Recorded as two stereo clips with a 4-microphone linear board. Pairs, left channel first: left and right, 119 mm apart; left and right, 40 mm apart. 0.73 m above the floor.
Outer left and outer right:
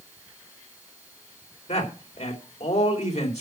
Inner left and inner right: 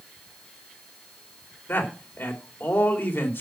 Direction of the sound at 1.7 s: 65° left (ahead or behind).